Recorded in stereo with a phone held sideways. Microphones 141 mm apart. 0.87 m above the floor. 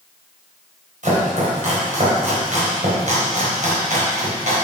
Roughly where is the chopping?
Right.